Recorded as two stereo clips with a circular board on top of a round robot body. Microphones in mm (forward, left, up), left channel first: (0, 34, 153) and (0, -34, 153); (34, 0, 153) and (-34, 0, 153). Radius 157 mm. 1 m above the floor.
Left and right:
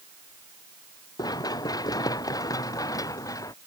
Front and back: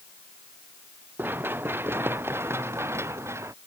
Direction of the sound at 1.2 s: 115° left.